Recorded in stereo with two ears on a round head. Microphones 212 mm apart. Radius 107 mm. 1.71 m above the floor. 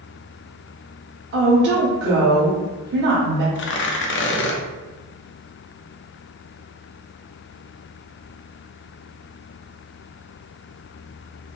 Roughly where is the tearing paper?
Left.